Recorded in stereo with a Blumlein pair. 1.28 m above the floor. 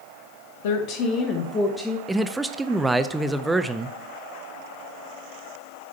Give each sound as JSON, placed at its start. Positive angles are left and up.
{"t": 0.6, "sound": "a woman speaking", "azimuth_deg": 55, "distance_m": 0.9}
{"t": 2.1, "sound": "a man speaking", "azimuth_deg": -5, "distance_m": 0.5}